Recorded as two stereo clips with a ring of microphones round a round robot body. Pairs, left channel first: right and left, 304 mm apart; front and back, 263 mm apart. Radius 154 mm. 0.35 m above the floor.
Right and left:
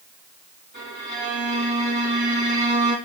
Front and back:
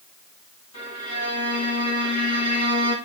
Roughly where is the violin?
Ahead left.